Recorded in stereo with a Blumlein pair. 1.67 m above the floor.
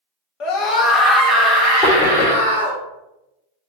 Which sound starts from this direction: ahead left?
A scream, at 0.4 s.